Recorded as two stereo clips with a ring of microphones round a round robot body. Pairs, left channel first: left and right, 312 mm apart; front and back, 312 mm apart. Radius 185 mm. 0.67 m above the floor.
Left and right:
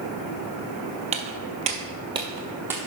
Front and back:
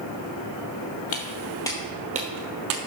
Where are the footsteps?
30° right, 0.8 m; by 2.8 s 175° right, 0.9 m.